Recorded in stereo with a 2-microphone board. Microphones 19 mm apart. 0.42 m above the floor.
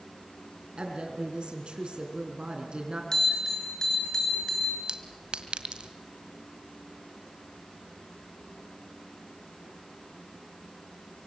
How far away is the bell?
About 6.5 m.